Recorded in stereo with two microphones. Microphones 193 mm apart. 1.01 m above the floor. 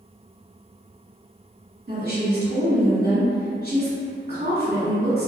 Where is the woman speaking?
45° right (ahead or behind), 1.2 m.